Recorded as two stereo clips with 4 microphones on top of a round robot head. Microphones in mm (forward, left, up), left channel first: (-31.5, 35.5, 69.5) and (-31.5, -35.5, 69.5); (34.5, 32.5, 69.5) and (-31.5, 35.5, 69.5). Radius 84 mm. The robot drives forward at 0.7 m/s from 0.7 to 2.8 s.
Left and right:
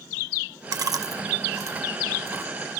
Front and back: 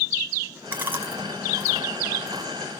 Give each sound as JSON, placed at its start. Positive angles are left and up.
{"t": 0.7, "sound": "chewing", "azimuth_deg": -115, "distance_m": 1.5}